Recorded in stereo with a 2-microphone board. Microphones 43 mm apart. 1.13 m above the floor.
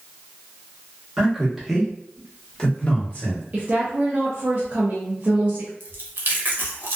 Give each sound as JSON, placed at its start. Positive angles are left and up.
{"t": 1.2, "sound": "a man speaking", "side_deg": -15, "distance_m": 1.2}
{"t": 3.5, "sound": "a woman speaking", "side_deg": -35, "distance_m": 0.6}
{"t": 5.8, "sound": "chewing", "side_deg": -55, "distance_m": 0.7}